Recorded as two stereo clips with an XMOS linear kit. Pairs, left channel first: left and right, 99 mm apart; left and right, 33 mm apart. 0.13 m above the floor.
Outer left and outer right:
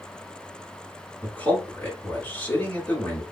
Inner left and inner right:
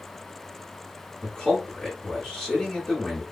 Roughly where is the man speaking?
Left.